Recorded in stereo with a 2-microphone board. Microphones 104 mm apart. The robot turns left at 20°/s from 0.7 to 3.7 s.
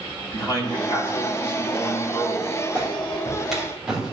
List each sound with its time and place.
0.3 s a man speaking: 135° left, 3 m; by 2.5 s 100° left, 3 m
2.8 s a clap: 15° left (ahead or behind), 3.5 m; by 4.1 s 5° right (ahead or behind), 3.5 m